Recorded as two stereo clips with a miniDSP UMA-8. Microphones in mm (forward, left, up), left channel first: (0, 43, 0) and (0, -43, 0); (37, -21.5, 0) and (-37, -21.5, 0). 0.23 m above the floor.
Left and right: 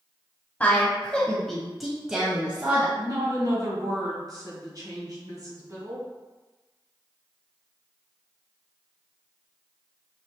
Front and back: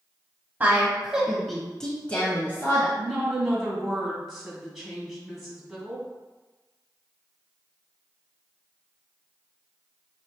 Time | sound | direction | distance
0.6 | a woman speaking | 140° left | 1.3 m
3.0 | a woman speaking | 90° right | 1.9 m